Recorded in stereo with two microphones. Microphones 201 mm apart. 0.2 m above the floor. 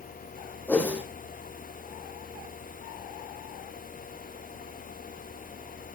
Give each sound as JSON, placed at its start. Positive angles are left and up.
{"t": 0.7, "sound": "a whoosh", "side_deg": 10, "distance_m": 3.5}